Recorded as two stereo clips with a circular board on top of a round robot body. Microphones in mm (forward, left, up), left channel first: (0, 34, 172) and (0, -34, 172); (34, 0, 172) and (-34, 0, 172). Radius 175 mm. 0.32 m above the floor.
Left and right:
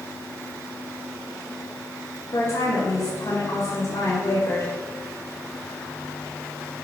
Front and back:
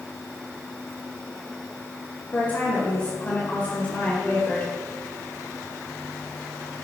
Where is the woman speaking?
65° left, 2 m.